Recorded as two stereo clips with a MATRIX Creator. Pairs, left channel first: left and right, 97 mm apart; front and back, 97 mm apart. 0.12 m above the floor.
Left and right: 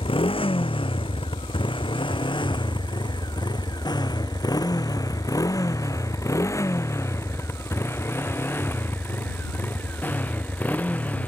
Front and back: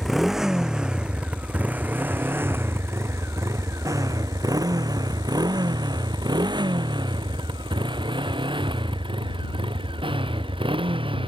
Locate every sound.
0.0 s a motorcycle: 90° left; by 11.3 s 165° left